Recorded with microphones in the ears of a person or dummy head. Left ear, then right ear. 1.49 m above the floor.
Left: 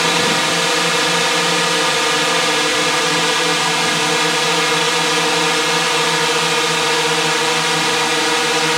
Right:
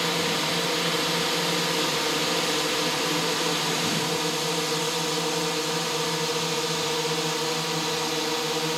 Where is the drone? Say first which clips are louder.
Left 10 dB; 55° left (ahead or behind).